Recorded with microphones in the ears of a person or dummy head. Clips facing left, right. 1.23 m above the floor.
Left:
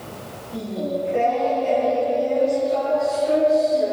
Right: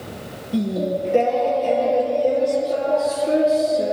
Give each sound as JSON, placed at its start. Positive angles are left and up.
{"t": 0.5, "sound": "singing", "side_deg": -50, "distance_m": 5.5}